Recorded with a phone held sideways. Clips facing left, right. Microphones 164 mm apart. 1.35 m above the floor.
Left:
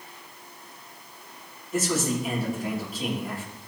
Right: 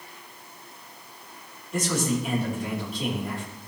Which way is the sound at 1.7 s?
5° left (ahead or behind).